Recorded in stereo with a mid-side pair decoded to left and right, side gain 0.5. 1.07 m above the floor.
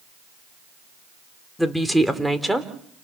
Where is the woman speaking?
Straight ahead, 3 m; by 2.7 s 10° right, 3.5 m.